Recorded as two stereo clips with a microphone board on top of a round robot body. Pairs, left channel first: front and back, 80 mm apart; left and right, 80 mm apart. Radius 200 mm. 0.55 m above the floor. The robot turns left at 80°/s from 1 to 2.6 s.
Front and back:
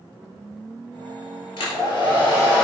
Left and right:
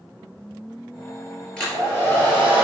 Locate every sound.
1.6 s a hair dryer: 10° left, 3 m; by 2.6 s 70° right, 3 m